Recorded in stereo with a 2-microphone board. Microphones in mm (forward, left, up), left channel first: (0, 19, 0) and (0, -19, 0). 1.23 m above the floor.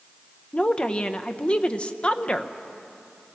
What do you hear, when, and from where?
0.5 s a woman speaking: 30° left (ahead or behind), 0.8 m